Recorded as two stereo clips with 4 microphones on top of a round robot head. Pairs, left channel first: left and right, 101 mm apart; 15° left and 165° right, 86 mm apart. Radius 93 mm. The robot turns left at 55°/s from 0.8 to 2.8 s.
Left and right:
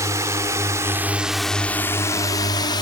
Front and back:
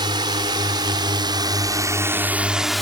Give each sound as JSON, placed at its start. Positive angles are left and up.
{"t": 0.0, "sound": "a drone", "azimuth_deg": -145}